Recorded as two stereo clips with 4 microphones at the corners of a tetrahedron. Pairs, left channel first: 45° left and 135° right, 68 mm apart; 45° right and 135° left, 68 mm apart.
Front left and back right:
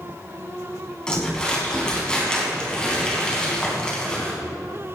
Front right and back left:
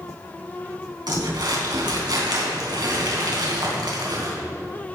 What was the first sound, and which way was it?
Crumpling, 125° left.